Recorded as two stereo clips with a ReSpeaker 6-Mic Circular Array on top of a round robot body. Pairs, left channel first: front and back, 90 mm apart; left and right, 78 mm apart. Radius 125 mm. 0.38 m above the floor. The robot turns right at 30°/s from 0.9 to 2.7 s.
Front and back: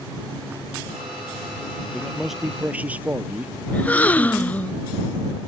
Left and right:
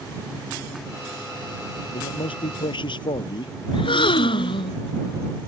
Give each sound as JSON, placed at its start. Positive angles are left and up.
{"t": 1.9, "sound": "a man speaking", "azimuth_deg": 85}
{"t": 3.7, "sound": "a gasp", "azimuth_deg": 75}